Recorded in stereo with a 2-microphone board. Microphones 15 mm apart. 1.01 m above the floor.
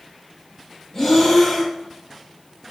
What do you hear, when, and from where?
0.9 s breathing: 30° left (ahead or behind), 1.0 m